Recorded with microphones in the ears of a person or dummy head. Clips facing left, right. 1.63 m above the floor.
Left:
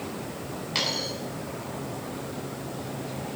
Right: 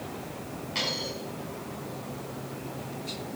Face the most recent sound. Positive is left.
turn(degrees=70)  # may be behind; listen again after turning